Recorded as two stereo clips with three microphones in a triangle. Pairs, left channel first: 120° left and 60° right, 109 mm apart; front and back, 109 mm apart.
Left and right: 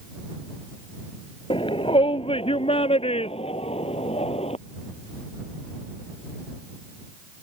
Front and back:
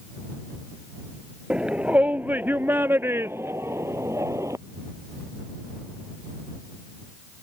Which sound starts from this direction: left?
A shout, at 1.5 s.